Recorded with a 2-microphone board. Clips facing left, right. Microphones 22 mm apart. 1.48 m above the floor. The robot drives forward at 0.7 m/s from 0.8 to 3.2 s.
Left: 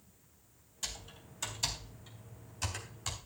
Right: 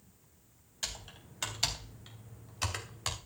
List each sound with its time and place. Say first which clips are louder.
0.8 s typing on a keyboard: right 2 dB; 35° right (ahead or behind), 3.5 m; by 3.2 s 55° right (ahead or behind), 2.5 m